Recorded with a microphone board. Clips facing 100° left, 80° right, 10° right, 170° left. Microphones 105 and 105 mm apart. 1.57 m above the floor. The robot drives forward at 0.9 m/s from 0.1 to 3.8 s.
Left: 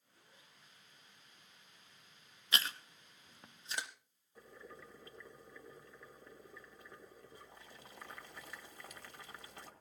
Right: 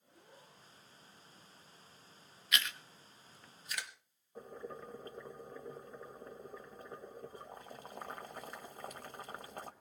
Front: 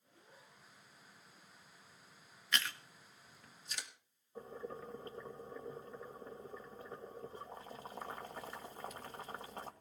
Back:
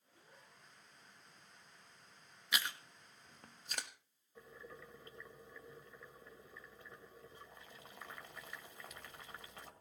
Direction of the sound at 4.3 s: 50° right.